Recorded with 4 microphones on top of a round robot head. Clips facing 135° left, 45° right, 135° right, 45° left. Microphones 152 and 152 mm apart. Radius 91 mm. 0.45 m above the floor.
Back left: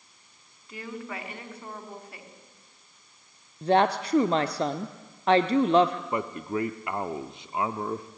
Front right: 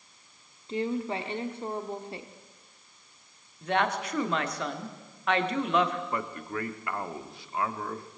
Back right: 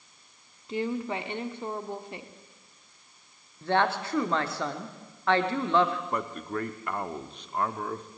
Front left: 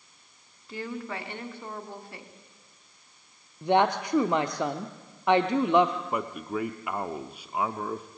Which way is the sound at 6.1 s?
115° left.